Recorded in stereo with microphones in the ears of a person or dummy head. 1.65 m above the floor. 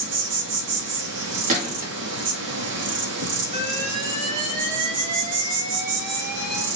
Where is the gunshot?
45° right (ahead or behind), 1.2 m.